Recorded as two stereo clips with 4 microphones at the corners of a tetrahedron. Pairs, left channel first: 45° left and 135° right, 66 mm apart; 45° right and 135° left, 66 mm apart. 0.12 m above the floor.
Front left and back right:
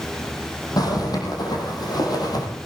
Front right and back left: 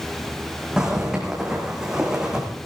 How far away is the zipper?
About 5 m.